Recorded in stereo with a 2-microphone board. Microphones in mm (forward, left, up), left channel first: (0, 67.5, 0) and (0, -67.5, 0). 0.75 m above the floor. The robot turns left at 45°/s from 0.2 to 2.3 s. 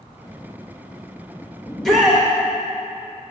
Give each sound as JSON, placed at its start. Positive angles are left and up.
{"t": 1.7, "sound": "a shout", "side_deg": 5, "distance_m": 0.8}